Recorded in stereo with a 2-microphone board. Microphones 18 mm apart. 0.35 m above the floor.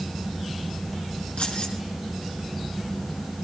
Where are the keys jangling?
65° left (ahead or behind), 3.5 m.